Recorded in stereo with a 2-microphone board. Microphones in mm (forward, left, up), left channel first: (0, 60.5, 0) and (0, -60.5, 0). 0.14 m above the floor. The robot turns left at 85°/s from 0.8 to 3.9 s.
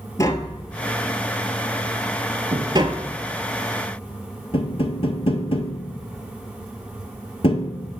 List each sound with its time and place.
0.2 s tapping: 25° left (ahead or behind), 0.7 m; by 8.0 s 50° left (ahead or behind), 0.7 m